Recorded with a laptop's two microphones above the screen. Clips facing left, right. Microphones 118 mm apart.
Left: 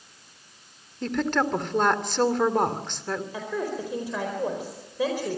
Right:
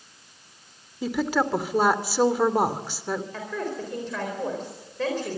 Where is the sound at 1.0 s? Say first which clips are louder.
Right 1 dB; 10° right (ahead or behind), 2.5 m.